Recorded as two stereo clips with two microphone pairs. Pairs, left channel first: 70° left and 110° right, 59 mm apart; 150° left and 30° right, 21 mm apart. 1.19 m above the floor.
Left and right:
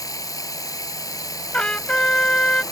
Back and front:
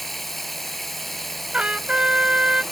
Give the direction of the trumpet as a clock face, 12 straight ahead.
12 o'clock.